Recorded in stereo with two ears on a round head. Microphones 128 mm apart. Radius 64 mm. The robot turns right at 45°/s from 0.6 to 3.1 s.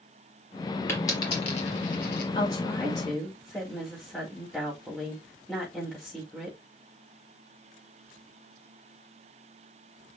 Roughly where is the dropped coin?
Centre.